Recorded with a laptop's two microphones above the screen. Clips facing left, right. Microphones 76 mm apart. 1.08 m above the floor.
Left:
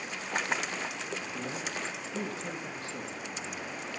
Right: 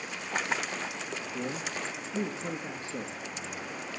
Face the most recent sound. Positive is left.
turn(degrees=-30)  # may be behind; listen again after turning